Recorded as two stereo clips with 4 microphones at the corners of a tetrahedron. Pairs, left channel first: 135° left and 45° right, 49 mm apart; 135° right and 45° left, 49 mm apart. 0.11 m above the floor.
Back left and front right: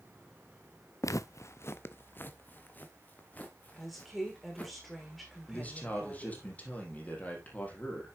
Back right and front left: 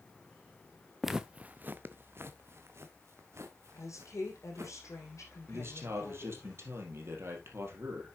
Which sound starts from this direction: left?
A man speaking, at 5.5 s.